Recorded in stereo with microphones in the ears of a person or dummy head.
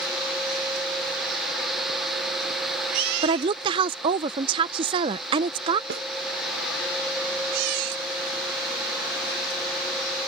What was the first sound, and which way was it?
A woman speaking, 30° right (ahead or behind).